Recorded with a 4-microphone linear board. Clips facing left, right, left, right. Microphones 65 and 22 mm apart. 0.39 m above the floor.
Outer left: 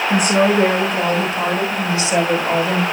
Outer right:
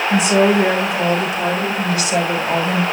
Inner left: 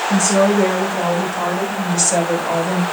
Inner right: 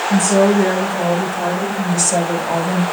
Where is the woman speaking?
55° left (ahead or behind), 4 m; by 2.8 s 5° left (ahead or behind), 2 m.